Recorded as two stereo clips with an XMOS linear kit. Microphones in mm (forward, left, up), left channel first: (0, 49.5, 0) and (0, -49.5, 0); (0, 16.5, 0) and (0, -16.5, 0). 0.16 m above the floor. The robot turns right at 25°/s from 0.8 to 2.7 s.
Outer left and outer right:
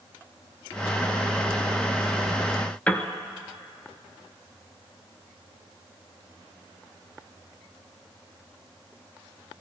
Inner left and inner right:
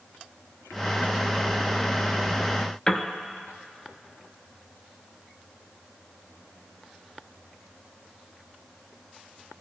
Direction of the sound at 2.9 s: 15° left (ahead or behind).